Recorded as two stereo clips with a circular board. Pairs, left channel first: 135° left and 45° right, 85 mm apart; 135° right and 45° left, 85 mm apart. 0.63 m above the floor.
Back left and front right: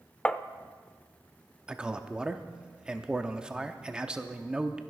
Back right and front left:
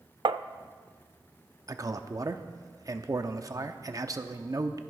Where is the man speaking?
30° left, 0.8 m.